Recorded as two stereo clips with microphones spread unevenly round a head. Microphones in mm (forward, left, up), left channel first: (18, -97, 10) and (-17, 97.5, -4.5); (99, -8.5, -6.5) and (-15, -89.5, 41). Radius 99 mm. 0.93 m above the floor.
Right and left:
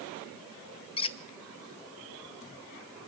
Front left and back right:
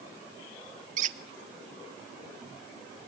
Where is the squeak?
140° right, 0.7 m.